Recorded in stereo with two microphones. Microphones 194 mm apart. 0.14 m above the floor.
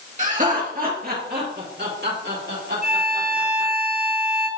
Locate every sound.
0.2 s laughter: 40° right (ahead or behind), 2.5 m; by 3.7 s 70° right (ahead or behind), 4 m
2.8 s a violin: 50° right (ahead or behind), 1.3 m